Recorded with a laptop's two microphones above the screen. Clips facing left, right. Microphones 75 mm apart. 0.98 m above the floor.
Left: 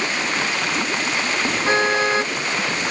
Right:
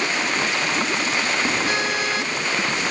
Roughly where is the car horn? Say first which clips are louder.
Left 5 dB; left.